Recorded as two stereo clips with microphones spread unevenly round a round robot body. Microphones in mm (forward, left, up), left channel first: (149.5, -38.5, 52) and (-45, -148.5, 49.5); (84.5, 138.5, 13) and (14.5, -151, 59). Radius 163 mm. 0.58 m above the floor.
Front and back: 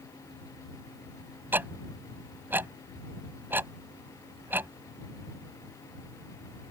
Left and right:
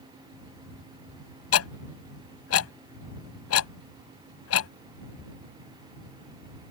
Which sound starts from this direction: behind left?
Ticking, at 1.5 s.